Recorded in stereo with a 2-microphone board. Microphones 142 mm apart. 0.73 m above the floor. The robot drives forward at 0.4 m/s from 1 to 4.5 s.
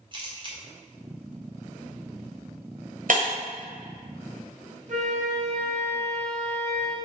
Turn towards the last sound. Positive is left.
turn(degrees=-55)  # may be behind; listen again after turning